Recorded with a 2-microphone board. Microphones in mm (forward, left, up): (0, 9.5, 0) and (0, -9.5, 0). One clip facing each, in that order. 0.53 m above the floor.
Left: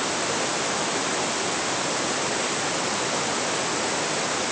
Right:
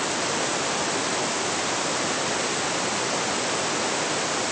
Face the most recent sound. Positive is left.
No sound to turn to.